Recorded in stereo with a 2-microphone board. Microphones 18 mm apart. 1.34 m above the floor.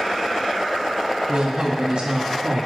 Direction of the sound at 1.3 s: 55° right (ahead or behind).